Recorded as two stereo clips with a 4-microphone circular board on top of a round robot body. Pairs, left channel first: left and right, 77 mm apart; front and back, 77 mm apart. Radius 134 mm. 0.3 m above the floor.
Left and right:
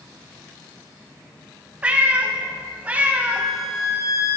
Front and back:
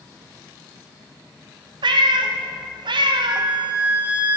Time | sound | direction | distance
1.8 | a cat meowing | 165° right | 0.6 m
3.3 | a flute | 115° left | 1.6 m